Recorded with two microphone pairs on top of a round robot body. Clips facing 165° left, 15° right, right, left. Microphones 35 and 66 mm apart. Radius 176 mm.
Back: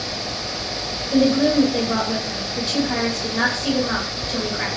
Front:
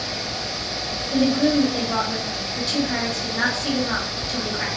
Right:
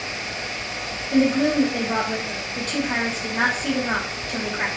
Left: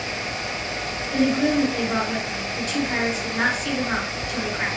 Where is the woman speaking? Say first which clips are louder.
Back 2 dB, right 2 dB; 120° right, 2.0 m.